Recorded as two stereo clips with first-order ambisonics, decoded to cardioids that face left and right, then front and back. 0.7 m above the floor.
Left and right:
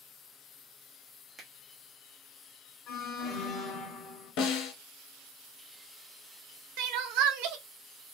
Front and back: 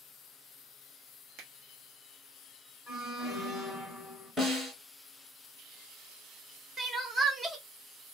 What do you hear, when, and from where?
1.4 s a finger snap: 165° right, 0.9 m
2.9 s an alarm: 95° left, 2 m
4.4 s a snare drum: 100° left, 1.5 m
6.8 s crying: 105° right, 0.6 m